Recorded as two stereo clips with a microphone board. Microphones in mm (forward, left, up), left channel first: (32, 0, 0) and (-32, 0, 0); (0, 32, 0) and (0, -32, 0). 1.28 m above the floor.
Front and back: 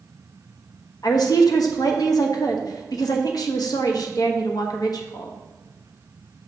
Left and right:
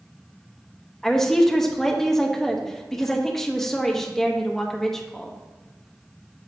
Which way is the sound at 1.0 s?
5° left.